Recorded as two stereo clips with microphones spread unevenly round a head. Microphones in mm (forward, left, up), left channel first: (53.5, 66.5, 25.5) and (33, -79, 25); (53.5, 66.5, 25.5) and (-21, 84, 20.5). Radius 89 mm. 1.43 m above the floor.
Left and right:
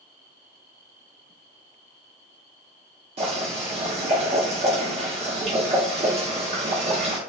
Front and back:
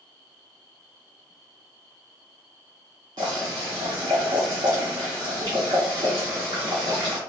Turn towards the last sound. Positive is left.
turn(degrees=-145)